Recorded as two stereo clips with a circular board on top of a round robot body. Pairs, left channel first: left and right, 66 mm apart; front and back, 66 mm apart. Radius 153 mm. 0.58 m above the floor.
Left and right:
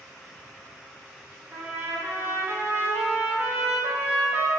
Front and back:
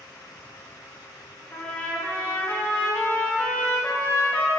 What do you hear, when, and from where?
1.5 s a trumpet: 55° right, 0.8 m